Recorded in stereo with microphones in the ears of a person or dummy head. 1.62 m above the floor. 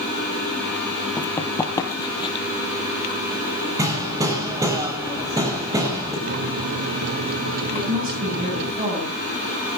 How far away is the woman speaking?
About 8.5 m.